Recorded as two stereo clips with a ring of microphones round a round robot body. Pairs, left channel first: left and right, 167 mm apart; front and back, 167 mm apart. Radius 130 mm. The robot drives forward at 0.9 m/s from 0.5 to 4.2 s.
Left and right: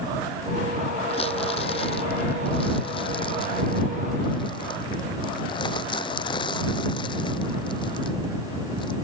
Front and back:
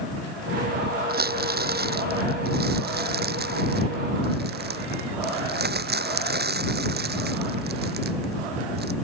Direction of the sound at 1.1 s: 155° left.